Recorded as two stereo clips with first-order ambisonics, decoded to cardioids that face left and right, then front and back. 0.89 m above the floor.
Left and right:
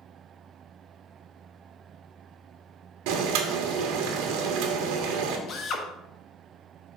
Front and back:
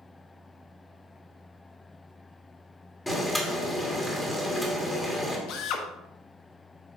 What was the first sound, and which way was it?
Boiling, 90° right.